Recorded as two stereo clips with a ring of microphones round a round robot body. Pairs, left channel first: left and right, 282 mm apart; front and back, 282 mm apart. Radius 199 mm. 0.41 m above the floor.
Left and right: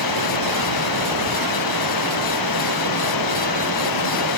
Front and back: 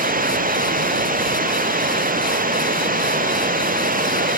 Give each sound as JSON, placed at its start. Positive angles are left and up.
{"t": 0.0, "sound": "running water", "azimuth_deg": 120}